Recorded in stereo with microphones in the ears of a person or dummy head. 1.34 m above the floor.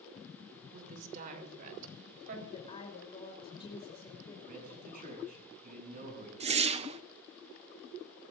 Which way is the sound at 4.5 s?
50° right (ahead or behind).